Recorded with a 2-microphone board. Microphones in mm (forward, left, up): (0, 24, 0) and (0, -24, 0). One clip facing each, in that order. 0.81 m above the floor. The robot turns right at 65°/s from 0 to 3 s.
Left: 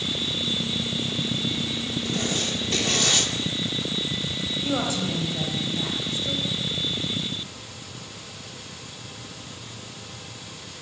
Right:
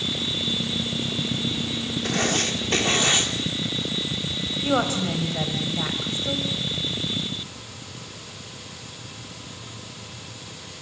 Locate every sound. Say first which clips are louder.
2.0 s writing: right 5 dB; 95° right, 2.5 m; by 3.3 s 30° right, 2.5 m
4.6 s a woman speaking: right 4 dB; 40° right (ahead or behind), 4 m